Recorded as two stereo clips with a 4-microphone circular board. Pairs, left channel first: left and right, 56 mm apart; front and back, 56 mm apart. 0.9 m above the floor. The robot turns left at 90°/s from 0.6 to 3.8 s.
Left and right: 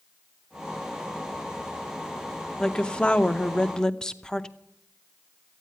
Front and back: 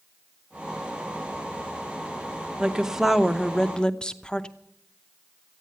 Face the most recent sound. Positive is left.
turn(degrees=35)